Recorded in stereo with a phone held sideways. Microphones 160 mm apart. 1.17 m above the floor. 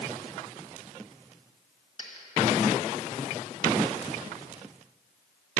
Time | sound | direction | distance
2.0 | a dropped coin | 30° left (ahead or behind) | 1.3 m